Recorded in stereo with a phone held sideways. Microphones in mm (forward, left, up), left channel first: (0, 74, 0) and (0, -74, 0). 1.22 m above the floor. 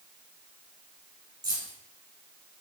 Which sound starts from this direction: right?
Keys jangling, at 1.4 s.